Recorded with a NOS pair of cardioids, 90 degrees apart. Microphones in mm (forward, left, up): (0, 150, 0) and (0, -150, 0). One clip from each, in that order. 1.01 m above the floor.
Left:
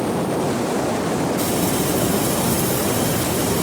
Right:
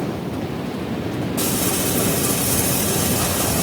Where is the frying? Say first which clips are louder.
Left 1 dB; 55° right, 5 m.